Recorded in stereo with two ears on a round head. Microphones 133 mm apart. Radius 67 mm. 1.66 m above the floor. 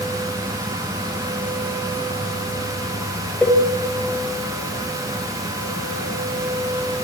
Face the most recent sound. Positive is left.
turn(degrees=5)  # may be behind; listen again after turning